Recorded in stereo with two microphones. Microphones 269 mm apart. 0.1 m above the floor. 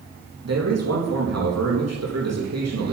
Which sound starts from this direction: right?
A man speaking, at 0.4 s.